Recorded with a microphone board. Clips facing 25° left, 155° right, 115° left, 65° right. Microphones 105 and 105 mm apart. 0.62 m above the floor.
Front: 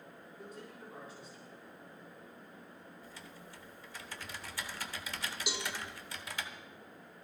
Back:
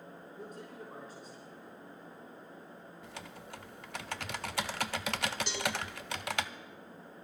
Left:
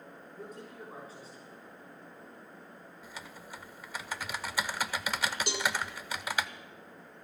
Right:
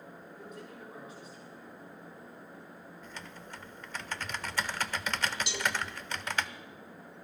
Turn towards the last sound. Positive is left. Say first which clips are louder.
# back 4 dB, left 1 dB
turn(degrees=100)